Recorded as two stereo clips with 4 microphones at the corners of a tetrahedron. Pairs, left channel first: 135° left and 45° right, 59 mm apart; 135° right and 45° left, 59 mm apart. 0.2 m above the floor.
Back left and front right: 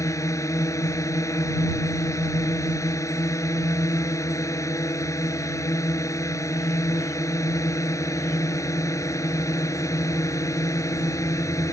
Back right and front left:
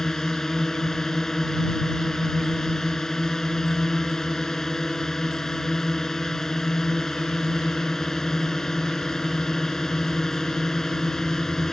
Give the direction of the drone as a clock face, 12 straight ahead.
7 o'clock.